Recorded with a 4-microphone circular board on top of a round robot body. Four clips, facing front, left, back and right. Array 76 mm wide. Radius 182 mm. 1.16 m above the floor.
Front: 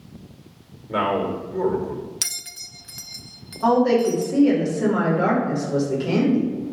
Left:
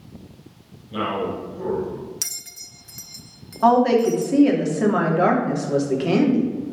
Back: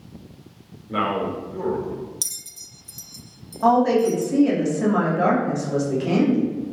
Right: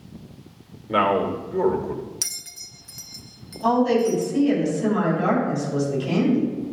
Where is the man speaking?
80° right, 3 m.